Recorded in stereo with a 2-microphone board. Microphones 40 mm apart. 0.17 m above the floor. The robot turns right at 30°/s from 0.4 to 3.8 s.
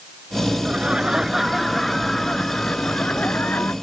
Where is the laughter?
30° right; by 3.7 s 65° left.